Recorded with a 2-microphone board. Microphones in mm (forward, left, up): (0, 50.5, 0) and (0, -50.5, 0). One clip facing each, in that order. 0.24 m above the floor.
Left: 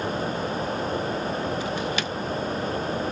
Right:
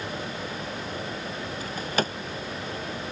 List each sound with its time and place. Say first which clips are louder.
1.6 s a drawer: left 2 dB; 40° right (ahead or behind)